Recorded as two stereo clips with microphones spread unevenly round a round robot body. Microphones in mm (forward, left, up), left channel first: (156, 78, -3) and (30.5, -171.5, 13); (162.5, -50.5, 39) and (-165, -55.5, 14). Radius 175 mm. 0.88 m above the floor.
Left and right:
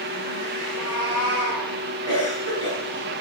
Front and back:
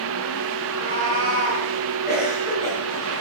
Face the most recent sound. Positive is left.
turn(degrees=65)